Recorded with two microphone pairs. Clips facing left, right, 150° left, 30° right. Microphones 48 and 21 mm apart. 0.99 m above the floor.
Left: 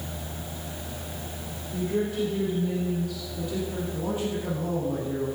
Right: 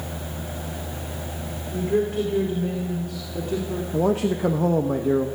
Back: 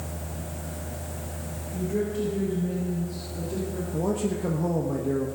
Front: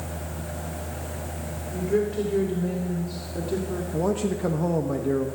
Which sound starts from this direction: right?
A man speaking, at 3.9 s.